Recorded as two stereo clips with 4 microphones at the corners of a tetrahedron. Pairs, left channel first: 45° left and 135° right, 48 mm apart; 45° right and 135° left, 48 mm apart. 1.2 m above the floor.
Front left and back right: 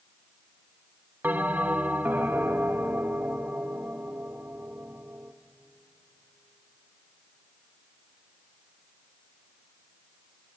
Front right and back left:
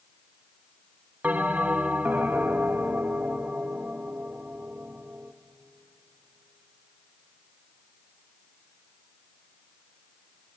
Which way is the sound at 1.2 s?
175° right.